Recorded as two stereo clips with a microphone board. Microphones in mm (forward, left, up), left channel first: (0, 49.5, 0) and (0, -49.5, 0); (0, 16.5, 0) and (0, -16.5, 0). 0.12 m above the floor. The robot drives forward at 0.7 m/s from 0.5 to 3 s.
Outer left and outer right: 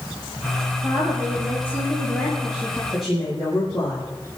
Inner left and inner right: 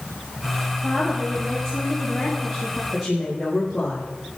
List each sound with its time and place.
0.8 s a woman speaking: 20° right (ahead or behind), 4.5 m; by 2.8 s 15° right (ahead or behind), 5.5 m
2.9 s a woman speaking: centre (ahead or behind), 5 m